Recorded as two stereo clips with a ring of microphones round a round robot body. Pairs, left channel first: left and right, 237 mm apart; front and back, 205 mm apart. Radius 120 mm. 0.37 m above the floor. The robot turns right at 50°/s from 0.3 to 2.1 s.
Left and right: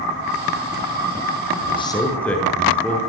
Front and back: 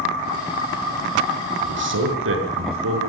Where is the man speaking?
150° left, 7 m; by 3.0 s 175° left, 7 m.